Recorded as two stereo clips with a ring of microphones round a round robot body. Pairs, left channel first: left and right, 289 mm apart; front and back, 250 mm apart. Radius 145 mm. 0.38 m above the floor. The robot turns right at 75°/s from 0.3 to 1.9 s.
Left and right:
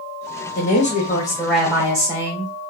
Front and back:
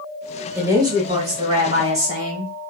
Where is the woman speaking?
105° left, 1.1 m; by 2.5 s 155° right, 1.1 m.